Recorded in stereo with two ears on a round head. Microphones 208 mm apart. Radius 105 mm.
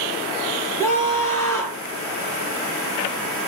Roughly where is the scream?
Centre.